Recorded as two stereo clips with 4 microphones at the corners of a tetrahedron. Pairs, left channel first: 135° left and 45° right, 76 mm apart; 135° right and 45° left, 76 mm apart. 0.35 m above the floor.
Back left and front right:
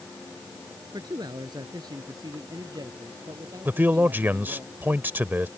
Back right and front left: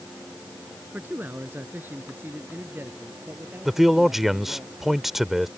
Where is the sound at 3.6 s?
40° right.